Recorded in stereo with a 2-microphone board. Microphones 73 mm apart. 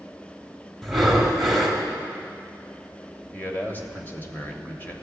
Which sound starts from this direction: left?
A man speaking, at 3.3 s.